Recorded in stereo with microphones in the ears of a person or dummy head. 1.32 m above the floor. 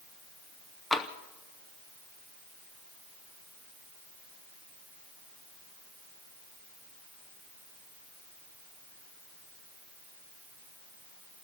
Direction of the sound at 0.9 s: 5° right (ahead or behind).